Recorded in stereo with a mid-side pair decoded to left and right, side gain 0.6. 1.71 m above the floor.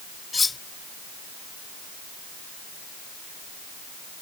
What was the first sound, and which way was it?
Cutlery clinking, 20° left.